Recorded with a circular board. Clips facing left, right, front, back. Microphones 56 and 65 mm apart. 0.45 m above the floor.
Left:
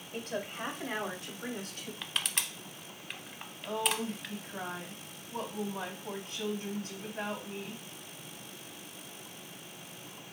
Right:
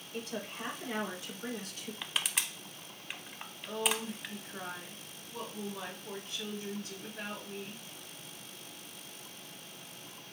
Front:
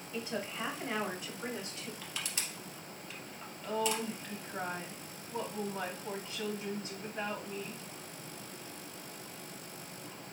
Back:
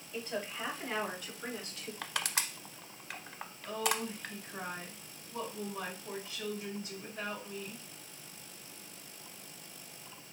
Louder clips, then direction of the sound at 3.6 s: Left 2 dB, front 1 dB; 55° left.